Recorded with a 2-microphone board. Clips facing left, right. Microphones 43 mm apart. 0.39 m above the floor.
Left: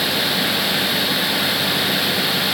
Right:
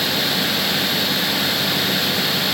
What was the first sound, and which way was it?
Only background noise.